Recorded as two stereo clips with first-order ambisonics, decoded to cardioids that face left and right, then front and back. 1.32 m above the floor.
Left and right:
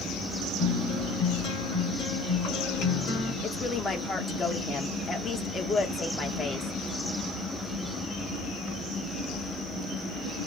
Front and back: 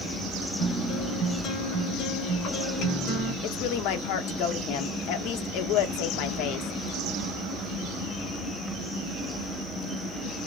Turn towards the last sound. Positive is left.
turn(degrees=15)